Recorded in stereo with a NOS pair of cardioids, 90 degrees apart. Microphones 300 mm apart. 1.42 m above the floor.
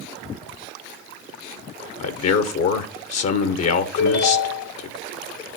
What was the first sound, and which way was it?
A man speaking, 60° left.